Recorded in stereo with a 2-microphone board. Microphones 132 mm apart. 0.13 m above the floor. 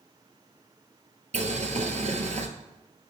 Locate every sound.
1.3 s boiling: 60° right (ahead or behind), 1.0 m